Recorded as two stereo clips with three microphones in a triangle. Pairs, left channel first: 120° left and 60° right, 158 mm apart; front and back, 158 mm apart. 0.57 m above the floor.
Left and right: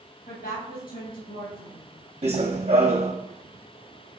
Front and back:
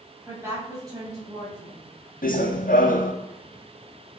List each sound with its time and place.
0.3 s a woman speaking: 105° left, 3.5 m; by 1.9 s 120° left, 4 m
2.2 s running footsteps: 15° right, 1.6 m